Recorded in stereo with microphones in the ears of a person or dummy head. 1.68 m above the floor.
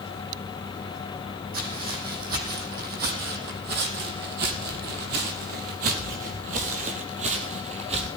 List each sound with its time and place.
1.5 s footsteps: 50° right (ahead or behind), 4 m; by 8.1 s 35° right (ahead or behind), 2.5 m